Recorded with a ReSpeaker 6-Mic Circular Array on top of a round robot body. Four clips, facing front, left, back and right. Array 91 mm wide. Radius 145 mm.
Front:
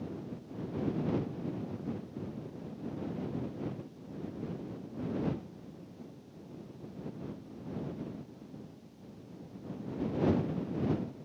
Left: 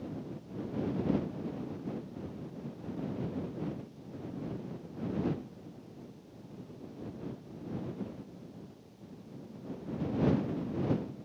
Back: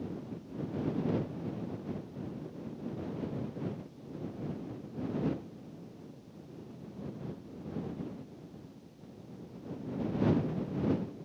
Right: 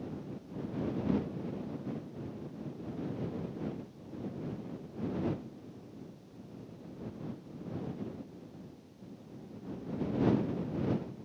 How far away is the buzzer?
I don't hear a buzzer.